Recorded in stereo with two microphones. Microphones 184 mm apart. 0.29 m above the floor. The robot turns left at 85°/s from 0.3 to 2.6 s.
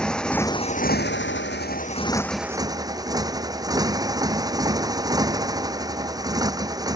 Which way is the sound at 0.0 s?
175° left.